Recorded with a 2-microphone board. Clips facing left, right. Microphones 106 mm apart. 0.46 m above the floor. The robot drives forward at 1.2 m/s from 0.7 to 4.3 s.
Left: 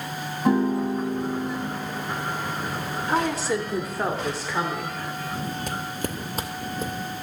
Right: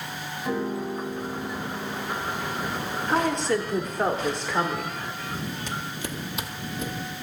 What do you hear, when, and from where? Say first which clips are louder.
0.5 s a piano: left 7 dB; 80° left, 0.9 m; by 2.0 s 30° left (ahead or behind), 1.7 m
3.1 s a woman speaking: right 1 dB; 5° left (ahead or behind), 1.1 m
5.7 s footsteps: left 3 dB; 55° left (ahead or behind), 0.6 m; by 6.9 s 35° left (ahead or behind), 1.5 m